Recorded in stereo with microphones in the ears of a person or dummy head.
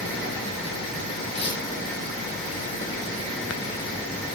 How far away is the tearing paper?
About 9 m.